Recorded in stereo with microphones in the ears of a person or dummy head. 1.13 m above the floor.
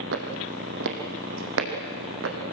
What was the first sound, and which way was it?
Footsteps, 60° right (ahead or behind).